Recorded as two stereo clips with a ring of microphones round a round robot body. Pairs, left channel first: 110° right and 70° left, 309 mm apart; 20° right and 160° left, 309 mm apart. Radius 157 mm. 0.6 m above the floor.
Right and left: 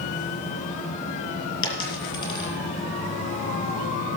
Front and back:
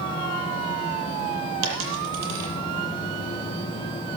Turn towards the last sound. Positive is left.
turn(degrees=-165)